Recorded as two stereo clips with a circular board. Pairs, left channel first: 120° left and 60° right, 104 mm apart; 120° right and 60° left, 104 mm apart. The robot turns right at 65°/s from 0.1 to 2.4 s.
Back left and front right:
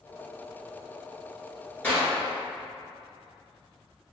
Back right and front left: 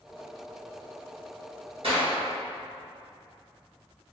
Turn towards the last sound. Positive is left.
turn(degrees=85)